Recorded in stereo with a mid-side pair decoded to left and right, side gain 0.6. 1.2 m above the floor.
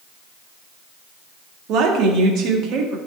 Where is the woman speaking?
60° right, 1.8 m.